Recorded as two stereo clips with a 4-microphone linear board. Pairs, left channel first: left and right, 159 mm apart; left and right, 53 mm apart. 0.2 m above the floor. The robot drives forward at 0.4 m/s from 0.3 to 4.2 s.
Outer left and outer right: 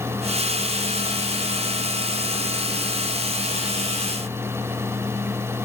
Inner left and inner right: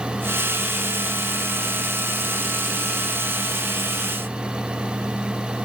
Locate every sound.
Only background noise.